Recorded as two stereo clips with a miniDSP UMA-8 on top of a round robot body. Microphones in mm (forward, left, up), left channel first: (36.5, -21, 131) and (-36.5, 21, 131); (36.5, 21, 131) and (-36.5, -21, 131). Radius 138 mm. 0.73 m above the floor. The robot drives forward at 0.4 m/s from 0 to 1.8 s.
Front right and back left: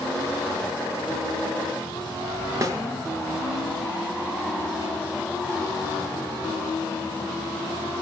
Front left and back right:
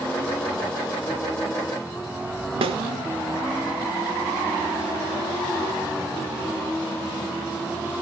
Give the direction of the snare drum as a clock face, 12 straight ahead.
5 o'clock.